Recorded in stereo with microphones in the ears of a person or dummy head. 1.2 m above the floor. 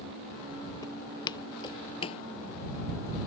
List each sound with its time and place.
0.8 s footsteps: 15° left (ahead or behind); by 2.2 s 30° left (ahead or behind)